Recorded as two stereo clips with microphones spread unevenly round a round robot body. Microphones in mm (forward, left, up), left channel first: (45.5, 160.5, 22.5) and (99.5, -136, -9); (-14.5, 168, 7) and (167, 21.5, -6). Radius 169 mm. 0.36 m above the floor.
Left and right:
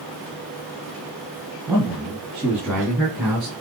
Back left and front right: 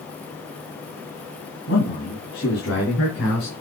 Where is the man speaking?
160° right, 3 m; by 3.5 s 170° right, 4.5 m.